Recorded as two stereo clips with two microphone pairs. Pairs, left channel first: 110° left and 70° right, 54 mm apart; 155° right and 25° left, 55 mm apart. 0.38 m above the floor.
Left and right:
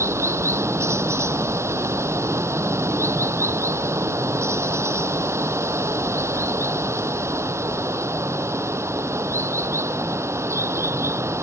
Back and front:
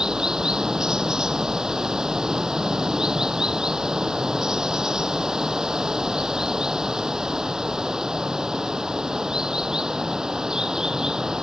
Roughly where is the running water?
Ahead right.